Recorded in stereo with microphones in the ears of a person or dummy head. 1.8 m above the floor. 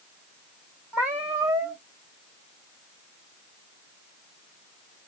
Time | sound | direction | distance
0.9 | a cat meowing | 10° right (ahead or behind) | 1.0 m